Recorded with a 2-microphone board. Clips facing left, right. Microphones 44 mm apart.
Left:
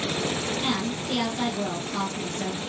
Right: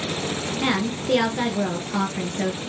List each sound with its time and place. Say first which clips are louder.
0.6 s a woman speaking: right 4 dB; 65° right (ahead or behind), 2.5 m